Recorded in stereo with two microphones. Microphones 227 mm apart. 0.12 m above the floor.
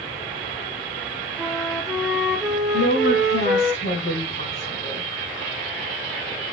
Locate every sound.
1.4 s a flute: centre (ahead or behind), 0.9 m
2.7 s a woman speaking: 60° left (ahead or behind), 4 m